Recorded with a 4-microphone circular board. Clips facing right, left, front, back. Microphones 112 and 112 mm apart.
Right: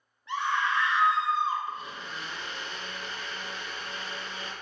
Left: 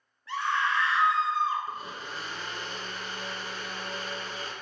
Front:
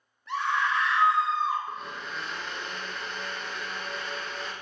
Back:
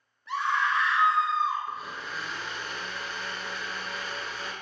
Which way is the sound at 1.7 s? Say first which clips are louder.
Even, even; 95° left.